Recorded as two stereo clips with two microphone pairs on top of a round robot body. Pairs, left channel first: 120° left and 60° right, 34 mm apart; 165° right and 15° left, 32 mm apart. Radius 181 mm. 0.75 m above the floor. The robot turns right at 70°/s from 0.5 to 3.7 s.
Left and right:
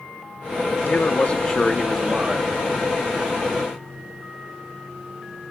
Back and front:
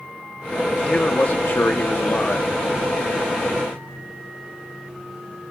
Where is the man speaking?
140° left, 1.5 m; by 2.5 s 100° right, 1.5 m.